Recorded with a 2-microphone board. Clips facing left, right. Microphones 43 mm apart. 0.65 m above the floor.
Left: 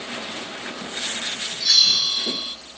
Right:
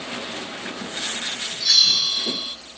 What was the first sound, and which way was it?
A bell, centre (ahead or behind).